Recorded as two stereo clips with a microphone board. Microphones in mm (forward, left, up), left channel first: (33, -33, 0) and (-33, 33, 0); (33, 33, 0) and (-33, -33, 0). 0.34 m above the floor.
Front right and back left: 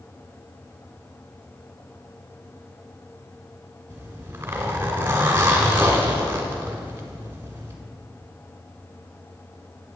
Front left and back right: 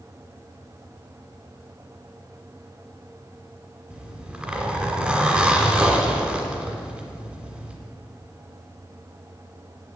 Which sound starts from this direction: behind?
A zipper, at 3.9 s.